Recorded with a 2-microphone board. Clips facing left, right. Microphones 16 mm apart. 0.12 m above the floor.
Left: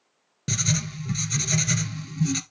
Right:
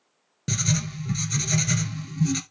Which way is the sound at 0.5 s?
10° left (ahead or behind).